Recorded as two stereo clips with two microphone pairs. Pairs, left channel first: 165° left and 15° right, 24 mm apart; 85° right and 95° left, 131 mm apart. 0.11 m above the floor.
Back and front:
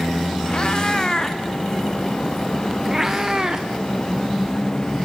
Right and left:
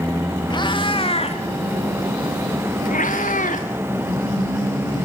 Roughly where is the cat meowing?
Behind right.